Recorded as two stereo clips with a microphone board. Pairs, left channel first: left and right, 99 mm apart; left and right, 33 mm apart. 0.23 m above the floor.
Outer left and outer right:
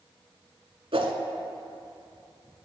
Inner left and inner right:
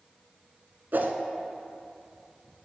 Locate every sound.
0.9 s a whoosh: 75° right (ahead or behind), 0.9 m